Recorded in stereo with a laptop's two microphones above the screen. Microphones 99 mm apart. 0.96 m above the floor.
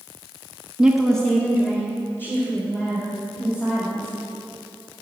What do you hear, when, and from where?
0.8 s a woman speaking: 10° right (ahead or behind), 0.9 m; by 4.2 s 30° left (ahead or behind), 5 m